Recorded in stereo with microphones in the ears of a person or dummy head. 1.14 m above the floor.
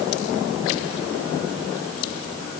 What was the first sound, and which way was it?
Only background noise.